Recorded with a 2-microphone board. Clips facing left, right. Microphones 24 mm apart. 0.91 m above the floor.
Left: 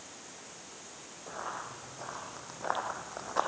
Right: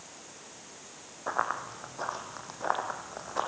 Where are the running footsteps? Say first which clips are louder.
Right 8 dB; 60° right (ahead or behind), 3 m; by 3.5 s 5° left (ahead or behind), 3 m.